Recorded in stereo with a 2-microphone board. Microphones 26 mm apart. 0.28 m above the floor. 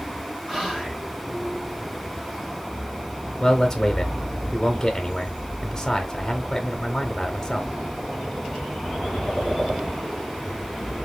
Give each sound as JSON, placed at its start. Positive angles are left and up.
{"t": 0.5, "sound": "whispering", "side_deg": -15, "distance_m": 1.3}
{"t": 3.4, "sound": "a man speaking", "side_deg": 15, "distance_m": 1.1}